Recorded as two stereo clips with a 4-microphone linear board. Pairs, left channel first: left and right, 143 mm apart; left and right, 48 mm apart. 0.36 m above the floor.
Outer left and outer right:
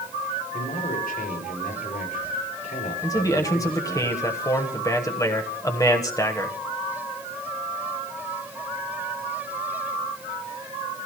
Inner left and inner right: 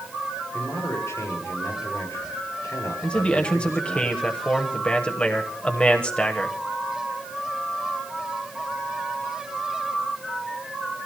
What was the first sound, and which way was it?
A man speaking, 80° left.